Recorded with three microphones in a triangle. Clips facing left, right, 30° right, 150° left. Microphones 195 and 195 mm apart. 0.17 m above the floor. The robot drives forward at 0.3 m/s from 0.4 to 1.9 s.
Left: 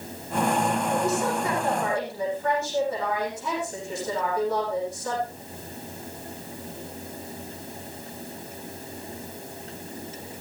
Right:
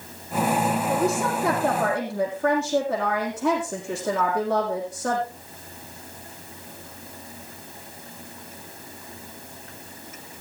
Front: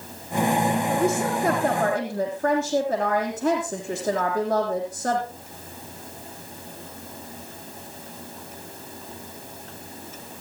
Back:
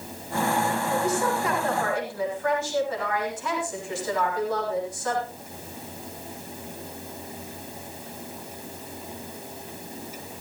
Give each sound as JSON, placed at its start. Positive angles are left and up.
{"t": 0.9, "sound": "a woman speaking", "azimuth_deg": -55, "distance_m": 6.5}